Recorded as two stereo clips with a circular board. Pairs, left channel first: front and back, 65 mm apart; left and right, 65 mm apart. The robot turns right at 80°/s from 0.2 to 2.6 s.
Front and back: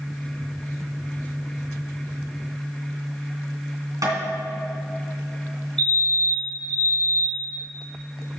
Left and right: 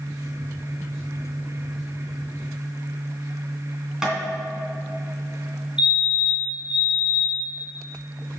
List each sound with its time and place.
4.0 s tapping: 165° right, 2.5 m
5.8 s a fire alarm: 50° right, 2.0 m